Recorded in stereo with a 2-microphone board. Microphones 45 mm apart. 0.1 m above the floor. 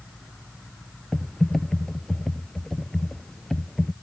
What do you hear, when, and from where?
1.1 s typing on a keyboard: 10° left (ahead or behind)